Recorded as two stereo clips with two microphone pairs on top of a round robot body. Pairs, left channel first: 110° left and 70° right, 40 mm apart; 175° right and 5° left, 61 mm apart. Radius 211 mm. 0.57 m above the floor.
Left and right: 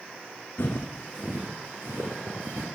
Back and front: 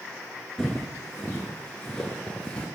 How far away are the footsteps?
About 0.6 m.